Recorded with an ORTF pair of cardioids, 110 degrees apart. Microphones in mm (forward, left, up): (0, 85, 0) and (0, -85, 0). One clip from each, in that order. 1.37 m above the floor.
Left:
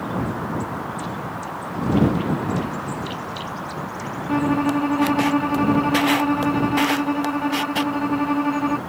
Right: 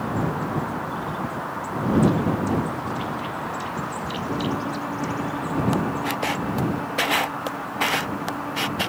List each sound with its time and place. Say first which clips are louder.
4.3 s a violin: left 9 dB; 70° left